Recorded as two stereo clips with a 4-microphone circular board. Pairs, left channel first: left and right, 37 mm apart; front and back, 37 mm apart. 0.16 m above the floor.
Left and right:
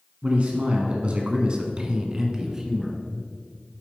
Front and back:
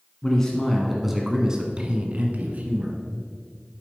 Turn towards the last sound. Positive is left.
turn(degrees=-165)